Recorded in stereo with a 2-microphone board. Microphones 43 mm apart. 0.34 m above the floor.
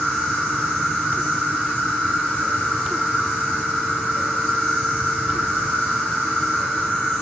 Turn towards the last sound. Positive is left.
turn(degrees=30)  # may be behind; listen again after turning